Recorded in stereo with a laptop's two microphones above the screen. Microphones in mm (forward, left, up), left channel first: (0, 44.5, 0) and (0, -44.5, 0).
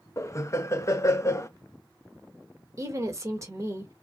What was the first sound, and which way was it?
Laughter, 35° left (ahead or behind).